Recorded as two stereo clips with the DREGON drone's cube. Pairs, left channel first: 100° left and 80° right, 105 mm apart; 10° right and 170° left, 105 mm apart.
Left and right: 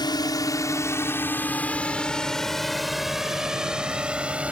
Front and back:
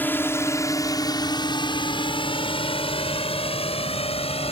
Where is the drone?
60° left; by 4.5 s straight ahead.